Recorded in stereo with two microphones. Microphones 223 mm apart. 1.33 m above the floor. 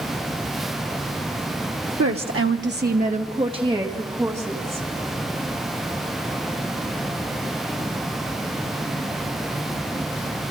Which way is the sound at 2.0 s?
85° right.